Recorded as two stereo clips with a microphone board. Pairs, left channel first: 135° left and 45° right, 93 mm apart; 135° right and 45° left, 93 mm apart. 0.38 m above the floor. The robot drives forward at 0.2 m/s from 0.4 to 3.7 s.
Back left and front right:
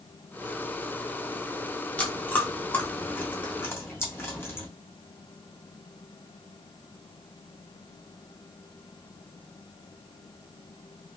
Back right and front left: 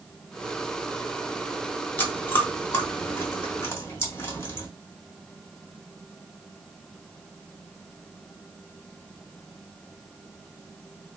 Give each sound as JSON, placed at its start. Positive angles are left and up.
{"t": 2.0, "sound": "chewing", "azimuth_deg": -175, "distance_m": 1.1}